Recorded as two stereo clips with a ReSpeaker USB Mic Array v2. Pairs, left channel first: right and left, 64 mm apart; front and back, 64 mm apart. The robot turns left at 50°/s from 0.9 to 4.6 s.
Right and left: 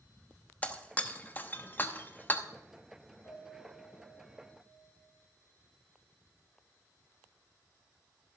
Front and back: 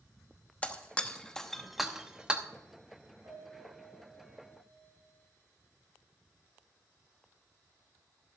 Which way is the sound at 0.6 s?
45° right.